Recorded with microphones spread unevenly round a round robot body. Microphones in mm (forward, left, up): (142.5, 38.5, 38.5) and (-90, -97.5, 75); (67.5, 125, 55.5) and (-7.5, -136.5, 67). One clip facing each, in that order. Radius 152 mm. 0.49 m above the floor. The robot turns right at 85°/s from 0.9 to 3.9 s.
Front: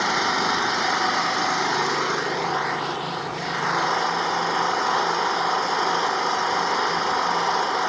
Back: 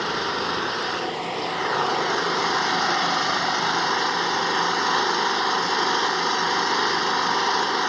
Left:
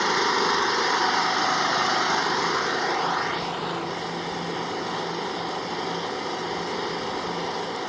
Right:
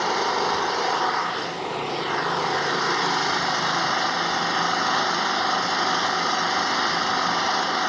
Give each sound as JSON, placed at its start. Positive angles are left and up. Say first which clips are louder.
{"t": 0.0, "sound": "an engine running", "louder": "front 1 dB, even", "azimuth_deg": 10}